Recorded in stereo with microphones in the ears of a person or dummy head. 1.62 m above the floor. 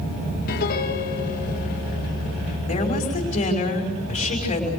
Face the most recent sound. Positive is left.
turn(degrees=35)  # may be behind; listen again after turning